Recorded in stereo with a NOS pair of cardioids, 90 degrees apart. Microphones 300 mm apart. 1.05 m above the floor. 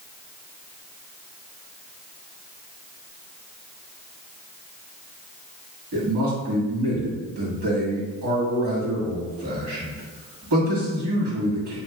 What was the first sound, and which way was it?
A man speaking, 65° right.